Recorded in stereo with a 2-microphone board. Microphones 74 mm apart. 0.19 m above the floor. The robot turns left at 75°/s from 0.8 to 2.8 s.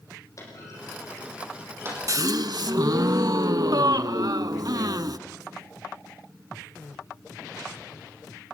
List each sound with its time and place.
0.4 s a clunk: 45° left (ahead or behind), 7.5 m; by 2.0 s 40° right (ahead or behind), 7.5 m
2.1 s a gasp: 55° right, 0.6 m; by 5.2 s 110° right, 0.6 m